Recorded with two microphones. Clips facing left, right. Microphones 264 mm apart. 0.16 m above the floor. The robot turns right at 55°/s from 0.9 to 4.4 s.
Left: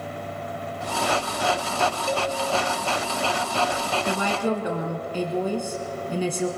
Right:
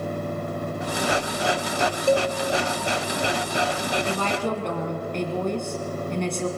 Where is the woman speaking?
15° left (ahead or behind), 1.6 m; by 6.5 s 5° left (ahead or behind), 1.6 m.